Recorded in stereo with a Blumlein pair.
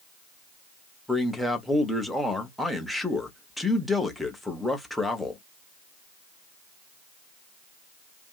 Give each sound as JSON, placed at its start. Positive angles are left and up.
{"t": 1.1, "sound": "a man speaking", "azimuth_deg": 0, "distance_m": 0.9}